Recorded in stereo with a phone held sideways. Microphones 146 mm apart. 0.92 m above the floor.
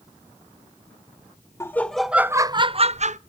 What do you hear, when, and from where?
1.6 s laughter: 15° left (ahead or behind), 0.6 m; by 3.2 s 50° right (ahead or behind), 0.6 m